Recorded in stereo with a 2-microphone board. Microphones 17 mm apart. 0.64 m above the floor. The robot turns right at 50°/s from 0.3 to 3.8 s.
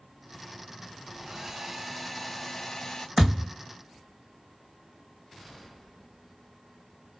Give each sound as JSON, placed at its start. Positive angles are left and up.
{"t": 1.2, "sound": "a hair dryer", "azimuth_deg": -45, "distance_m": 1.1}
{"t": 3.2, "sound": "a thud", "side_deg": -20, "distance_m": 2.5}